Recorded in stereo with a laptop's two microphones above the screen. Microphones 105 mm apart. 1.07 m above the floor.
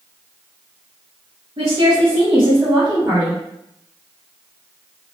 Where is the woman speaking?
70° right (ahead or behind), 1.1 m; by 3.4 s 25° right (ahead or behind), 1.4 m.